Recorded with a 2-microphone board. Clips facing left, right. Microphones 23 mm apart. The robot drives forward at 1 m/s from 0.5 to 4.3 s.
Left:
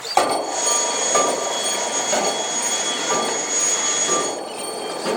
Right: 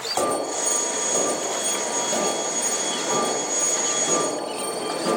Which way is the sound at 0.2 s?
40° left (ahead or behind).